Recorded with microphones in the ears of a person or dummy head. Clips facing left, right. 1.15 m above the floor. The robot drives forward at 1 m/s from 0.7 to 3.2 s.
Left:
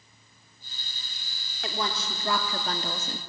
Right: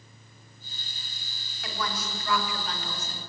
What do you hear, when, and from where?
1.6 s a woman speaking: 25° left (ahead or behind), 2.5 m; by 3.2 s 55° left (ahead or behind), 1.5 m